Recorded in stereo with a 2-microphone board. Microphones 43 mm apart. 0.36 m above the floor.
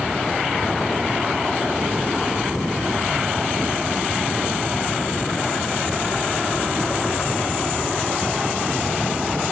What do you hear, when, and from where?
Only background noise.